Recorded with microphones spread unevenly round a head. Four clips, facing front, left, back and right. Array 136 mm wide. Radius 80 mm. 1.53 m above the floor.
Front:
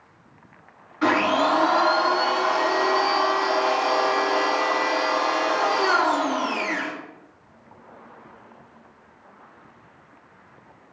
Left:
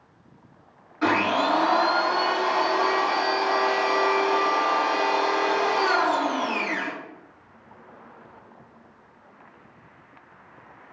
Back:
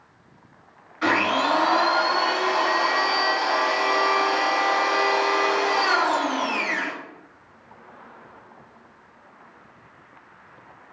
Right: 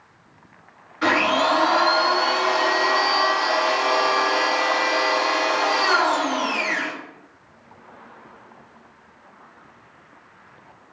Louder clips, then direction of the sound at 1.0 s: Right 2 dB, front 2 dB; 20° left.